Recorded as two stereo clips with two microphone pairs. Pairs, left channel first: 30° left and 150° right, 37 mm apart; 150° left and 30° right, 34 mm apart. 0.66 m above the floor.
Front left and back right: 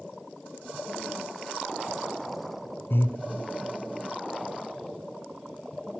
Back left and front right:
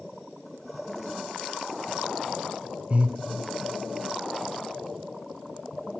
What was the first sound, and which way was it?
Breathing, 20° left.